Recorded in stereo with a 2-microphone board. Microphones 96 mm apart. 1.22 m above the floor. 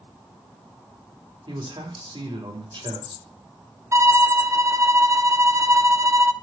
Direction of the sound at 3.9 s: 35° right (ahead or behind).